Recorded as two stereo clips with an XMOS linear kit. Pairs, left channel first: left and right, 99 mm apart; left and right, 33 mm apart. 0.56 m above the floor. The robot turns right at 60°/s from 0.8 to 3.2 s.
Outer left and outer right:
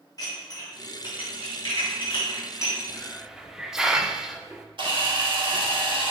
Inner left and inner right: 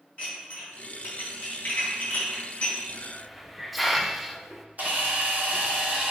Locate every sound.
0.2 s dishes clattering: 40° left (ahead or behind), 3 m; by 2.8 s 20° left (ahead or behind), 3 m
2.9 s a hiss: 10° left (ahead or behind), 0.6 m; by 4.7 s 5° right (ahead or behind), 0.6 m
4.8 s a camera shutter: 55° right (ahead or behind), 2 m